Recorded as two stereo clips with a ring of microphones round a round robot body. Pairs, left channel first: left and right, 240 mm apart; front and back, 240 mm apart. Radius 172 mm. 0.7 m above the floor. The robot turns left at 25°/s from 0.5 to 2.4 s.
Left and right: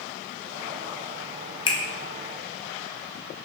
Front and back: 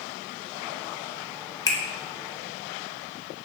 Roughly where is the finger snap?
Ahead left.